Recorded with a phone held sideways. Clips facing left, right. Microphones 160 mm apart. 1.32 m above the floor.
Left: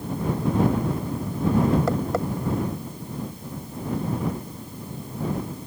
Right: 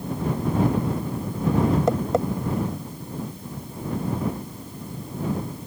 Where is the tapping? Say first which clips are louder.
Right 2 dB; 20° right (ahead or behind).